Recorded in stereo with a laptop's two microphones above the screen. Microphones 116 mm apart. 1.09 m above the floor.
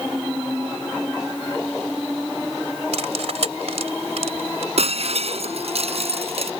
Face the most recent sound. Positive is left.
turn(degrees=-60)  # may be behind; listen again after turning